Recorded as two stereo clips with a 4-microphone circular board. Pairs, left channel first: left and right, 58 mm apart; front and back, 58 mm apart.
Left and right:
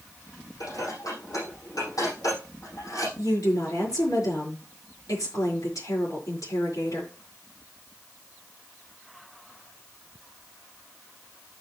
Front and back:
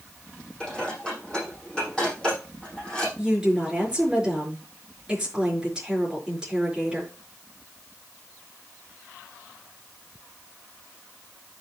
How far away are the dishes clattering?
About 8 m.